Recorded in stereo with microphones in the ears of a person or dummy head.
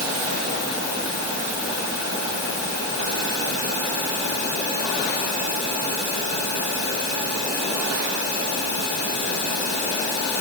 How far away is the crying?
No crying in this recording.